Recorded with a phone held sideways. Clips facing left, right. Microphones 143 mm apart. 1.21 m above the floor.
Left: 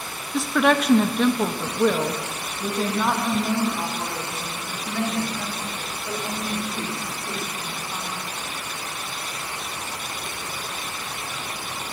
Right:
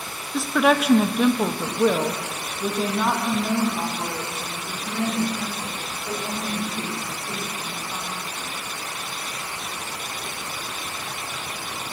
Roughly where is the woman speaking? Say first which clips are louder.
Even; centre.